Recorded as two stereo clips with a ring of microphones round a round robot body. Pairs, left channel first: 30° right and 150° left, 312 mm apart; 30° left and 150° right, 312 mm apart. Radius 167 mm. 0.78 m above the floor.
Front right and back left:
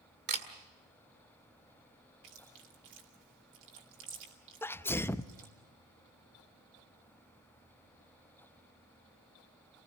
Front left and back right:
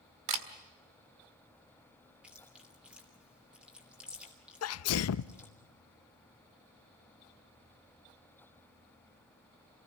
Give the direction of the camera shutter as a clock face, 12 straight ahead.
5 o'clock.